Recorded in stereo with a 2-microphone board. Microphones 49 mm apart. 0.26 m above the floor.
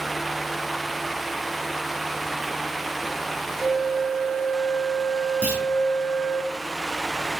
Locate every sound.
3.6 s a flute: 60° left (ahead or behind), 0.7 m
5.4 s a clunk: 20° right (ahead or behind), 1.7 m